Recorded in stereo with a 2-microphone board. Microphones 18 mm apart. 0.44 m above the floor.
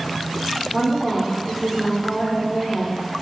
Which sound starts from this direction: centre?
A woman speaking, at 0.7 s.